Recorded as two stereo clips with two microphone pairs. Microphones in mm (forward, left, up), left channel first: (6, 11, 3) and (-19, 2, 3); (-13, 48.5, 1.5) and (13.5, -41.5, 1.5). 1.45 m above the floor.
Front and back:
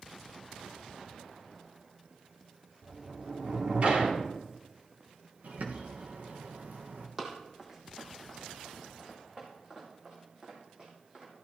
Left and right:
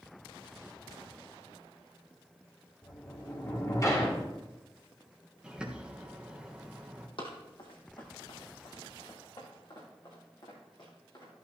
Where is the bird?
155° right, 1.4 m.